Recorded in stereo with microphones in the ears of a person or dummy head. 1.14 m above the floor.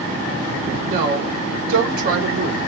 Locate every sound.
0.9 s a woman speaking: 40° right (ahead or behind), 0.9 m